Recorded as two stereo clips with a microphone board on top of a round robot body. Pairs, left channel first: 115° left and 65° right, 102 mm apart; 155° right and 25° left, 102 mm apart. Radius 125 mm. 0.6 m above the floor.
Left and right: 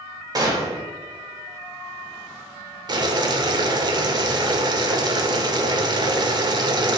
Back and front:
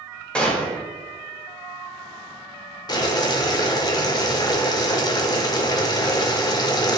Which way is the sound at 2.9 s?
110° right.